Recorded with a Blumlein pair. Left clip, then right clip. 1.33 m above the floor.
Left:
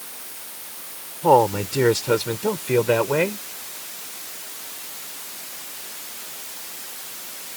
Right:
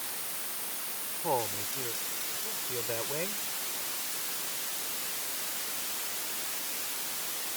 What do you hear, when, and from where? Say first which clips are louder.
1.2 s a man speaking: left 16 dB; 35° left; by 3.5 s 55° left